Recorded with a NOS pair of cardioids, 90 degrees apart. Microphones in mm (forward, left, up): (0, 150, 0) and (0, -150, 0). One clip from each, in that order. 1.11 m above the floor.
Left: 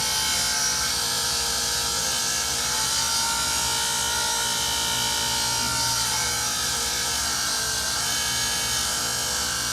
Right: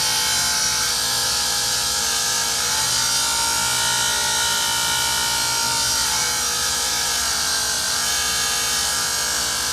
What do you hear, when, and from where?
0.0 s a machine running: 20° right, 0.7 m